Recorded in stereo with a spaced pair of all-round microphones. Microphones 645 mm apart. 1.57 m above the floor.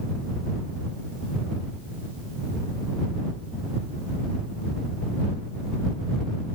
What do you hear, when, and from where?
Only background noise.